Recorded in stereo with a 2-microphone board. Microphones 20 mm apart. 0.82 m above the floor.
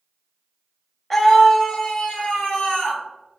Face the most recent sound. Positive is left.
turn(degrees=60)  # may be behind; listen again after turning